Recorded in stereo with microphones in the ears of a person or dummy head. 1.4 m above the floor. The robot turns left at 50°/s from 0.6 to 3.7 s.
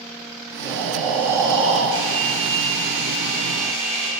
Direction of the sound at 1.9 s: 30° right.